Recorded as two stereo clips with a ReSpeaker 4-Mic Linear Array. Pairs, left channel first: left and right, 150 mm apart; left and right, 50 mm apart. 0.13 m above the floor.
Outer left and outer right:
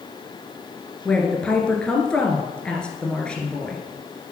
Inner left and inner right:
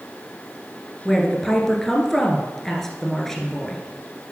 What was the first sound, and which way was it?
A woman speaking, 5° left (ahead or behind).